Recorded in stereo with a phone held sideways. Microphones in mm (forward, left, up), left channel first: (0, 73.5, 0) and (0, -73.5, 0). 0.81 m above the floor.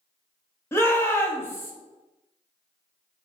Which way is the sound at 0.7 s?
15° left (ahead or behind).